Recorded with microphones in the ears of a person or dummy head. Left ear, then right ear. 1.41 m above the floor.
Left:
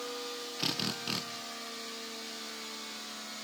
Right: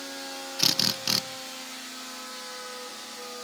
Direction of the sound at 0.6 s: 30° right (ahead or behind).